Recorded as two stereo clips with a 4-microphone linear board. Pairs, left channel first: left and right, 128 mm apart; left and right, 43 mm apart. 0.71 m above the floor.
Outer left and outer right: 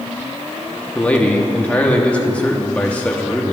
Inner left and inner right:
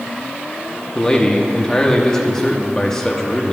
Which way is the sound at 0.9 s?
10° left (ahead or behind).